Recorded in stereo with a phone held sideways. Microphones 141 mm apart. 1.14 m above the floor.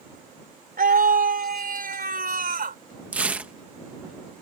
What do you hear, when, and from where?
0.8 s a scream: 85° right; by 2.8 s 80° right
3.1 s tearing paper: 10° right (ahead or behind)